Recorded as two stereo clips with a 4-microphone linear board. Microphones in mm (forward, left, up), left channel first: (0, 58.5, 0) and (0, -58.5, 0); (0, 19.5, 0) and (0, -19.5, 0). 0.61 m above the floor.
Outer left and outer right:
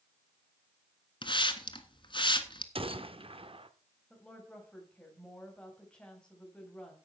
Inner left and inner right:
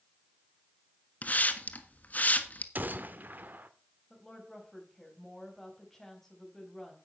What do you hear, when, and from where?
1.2 s a hiss: 45° left (ahead or behind), 1.3 m
2.8 s a gunshot: 50° right (ahead or behind), 0.8 m
4.1 s a woman speaking: 10° left (ahead or behind), 4 m